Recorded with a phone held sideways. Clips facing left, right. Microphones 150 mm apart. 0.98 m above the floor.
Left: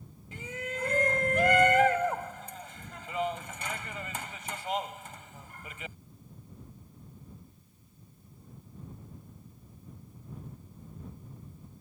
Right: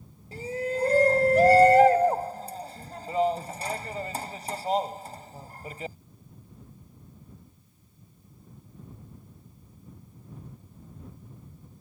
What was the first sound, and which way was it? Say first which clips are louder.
A shout: right 9 dB; 35° right (ahead or behind).